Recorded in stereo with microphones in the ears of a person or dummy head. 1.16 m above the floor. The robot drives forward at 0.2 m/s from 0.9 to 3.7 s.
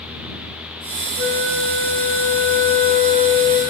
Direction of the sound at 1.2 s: 50° right (ahead or behind).